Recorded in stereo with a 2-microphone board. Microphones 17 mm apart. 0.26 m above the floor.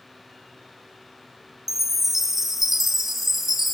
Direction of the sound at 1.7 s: 20° right (ahead or behind).